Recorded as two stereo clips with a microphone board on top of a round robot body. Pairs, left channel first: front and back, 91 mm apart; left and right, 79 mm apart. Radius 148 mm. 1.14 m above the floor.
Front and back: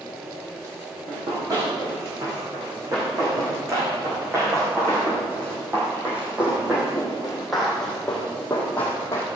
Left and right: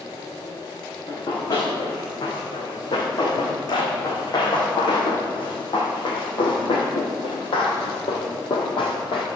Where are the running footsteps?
130° left, 6 m; by 9.3 s 65° left, 2.5 m.